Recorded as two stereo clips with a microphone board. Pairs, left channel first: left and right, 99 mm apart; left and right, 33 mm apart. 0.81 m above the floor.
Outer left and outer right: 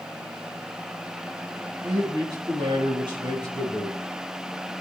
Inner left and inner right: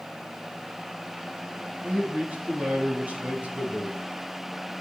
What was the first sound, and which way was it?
A man speaking, 45° right (ahead or behind).